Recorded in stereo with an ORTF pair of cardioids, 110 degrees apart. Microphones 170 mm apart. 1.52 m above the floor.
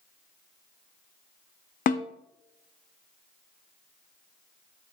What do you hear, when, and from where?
1.9 s a snare drum: 50° left, 0.9 m